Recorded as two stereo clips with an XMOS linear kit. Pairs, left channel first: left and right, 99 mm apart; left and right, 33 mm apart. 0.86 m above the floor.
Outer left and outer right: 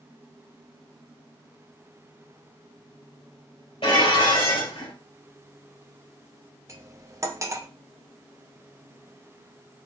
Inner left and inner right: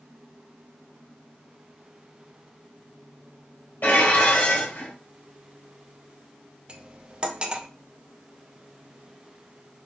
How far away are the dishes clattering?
About 2.5 m.